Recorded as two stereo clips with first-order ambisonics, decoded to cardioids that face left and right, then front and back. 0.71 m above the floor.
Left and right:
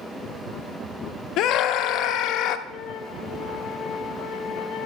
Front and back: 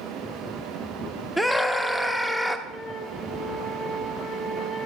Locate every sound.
1.4 s a scream: 85° left, 0.7 m
2.7 s a flute: 65° left, 1.5 m